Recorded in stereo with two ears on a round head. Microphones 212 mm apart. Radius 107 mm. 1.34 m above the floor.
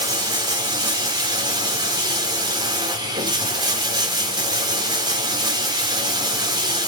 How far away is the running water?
About 3 m.